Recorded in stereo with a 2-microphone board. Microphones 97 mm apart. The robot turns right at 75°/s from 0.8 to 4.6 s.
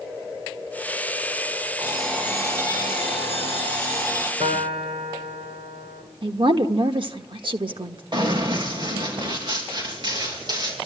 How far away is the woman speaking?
About 1.3 m.